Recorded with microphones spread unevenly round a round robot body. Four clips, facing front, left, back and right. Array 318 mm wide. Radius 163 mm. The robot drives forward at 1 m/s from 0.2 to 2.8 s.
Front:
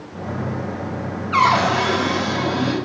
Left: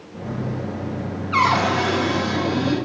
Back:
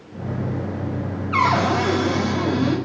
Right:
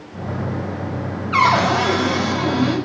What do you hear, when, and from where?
1.3 s a cupboard door: straight behind, 1.2 m